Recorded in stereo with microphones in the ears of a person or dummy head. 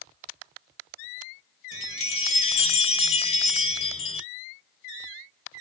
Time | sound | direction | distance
1.7 | a chime | 40° left (ahead or behind) | 0.7 m